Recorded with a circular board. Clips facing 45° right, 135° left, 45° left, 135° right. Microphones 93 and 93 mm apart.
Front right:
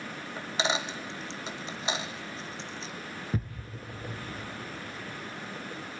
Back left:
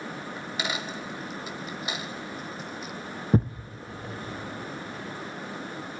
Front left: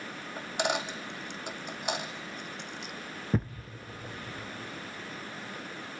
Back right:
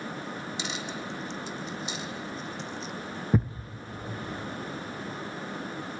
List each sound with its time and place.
0.4 s a dropped coin: 20° left, 1.4 m
3.3 s a thud: 145° left, 0.5 m